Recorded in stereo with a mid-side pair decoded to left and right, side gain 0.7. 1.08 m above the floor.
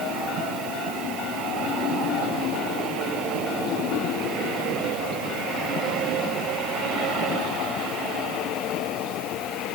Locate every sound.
Only background noise.